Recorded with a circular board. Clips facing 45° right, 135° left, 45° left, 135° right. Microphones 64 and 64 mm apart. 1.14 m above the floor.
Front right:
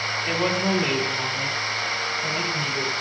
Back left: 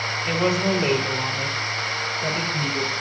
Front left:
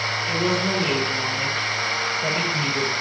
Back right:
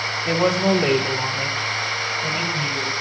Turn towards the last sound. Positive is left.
turn(degrees=90)